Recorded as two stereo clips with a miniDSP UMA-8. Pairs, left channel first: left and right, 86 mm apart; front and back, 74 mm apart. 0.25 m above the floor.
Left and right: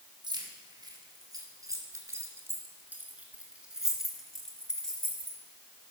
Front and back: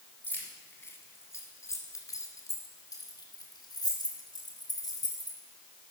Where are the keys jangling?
65° right, 2 m; by 5.4 s 15° left, 2 m.